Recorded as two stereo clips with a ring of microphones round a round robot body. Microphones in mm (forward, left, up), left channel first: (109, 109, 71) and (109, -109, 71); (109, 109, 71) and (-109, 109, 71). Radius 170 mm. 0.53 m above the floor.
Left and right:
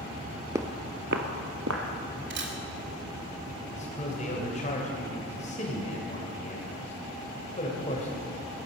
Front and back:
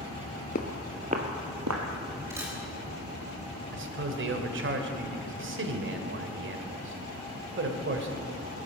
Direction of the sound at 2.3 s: 105° right.